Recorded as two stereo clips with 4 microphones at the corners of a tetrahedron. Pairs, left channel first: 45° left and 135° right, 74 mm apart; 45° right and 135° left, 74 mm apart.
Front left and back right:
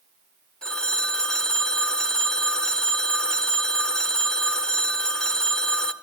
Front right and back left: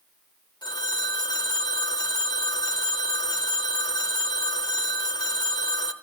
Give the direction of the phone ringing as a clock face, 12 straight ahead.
1 o'clock.